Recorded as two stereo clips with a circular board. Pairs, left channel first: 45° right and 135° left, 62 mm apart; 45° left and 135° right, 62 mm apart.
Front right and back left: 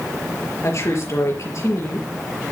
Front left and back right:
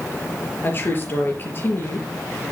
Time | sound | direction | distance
0.6 | a woman speaking | 10° right | 4.5 m